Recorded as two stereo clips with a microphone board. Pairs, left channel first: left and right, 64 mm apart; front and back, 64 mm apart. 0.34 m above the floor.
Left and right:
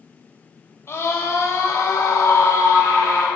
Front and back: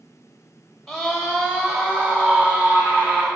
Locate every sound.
0.9 s a scream: 85° left, 1.1 m; by 3.3 s 120° left, 2 m